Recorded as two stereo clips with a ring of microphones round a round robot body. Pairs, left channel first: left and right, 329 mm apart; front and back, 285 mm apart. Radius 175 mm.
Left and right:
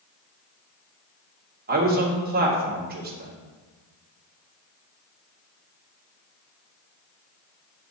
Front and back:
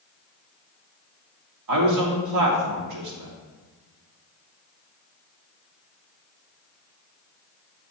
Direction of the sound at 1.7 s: 155° right.